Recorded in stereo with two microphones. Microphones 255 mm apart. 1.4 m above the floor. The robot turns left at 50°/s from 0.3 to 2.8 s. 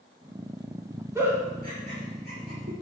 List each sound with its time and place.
1.1 s a giggle: 10° right (ahead or behind), 1.9 m; by 2.7 s 70° right (ahead or behind), 1.9 m